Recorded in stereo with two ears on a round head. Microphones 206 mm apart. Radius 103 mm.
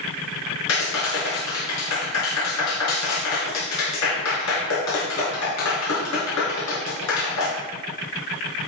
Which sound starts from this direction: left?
A clap, at 0.7 s.